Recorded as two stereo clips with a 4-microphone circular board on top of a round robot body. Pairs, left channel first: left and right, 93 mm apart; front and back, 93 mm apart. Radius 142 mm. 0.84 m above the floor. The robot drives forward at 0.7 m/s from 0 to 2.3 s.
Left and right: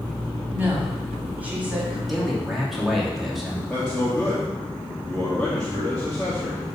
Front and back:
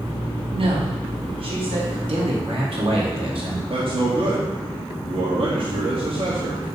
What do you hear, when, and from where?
0.5 s a woman speaking: 160° right, 2.5 m; by 2.0 s 165° right, 3.5 m
2.1 s a man speaking: straight behind, 2.5 m
3.7 s a man speaking: 170° left, 1.8 m